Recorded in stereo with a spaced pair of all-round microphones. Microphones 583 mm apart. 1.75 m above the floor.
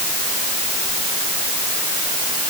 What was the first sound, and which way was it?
Only background noise.